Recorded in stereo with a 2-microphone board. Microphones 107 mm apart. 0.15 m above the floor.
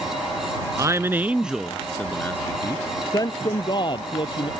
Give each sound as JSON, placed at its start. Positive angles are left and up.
{"t": 0.8, "sound": "a man speaking", "side_deg": -30}